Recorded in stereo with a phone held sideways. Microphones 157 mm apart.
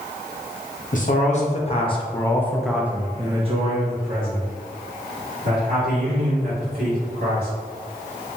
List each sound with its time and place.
0.9 s a man speaking: 55° left (ahead or behind), 1.1 m; by 7.5 s 80° right, 2.5 m